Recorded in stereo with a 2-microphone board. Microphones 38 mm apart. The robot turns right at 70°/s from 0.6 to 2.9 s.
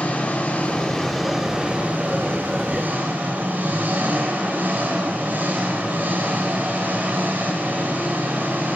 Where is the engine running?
140° left, 3.5 m; by 8.8 s 60° right, 3.5 m.